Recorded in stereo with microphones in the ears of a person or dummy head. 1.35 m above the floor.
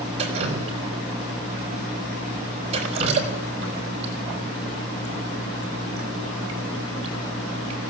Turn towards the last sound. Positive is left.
turn(degrees=-35)  # may be behind; listen again after turning